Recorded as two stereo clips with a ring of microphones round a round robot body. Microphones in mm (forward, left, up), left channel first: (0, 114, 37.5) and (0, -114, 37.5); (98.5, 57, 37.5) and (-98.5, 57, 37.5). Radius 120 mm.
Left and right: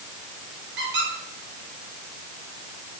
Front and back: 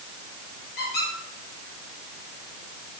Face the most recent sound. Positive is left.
turn(degrees=-50)